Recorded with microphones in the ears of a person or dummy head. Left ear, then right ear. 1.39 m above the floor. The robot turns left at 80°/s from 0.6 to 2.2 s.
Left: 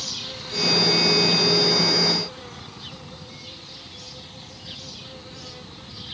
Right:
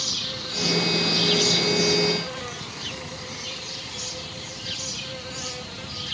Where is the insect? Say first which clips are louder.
Right 4 dB; 5° right; by 6.2 s 135° right.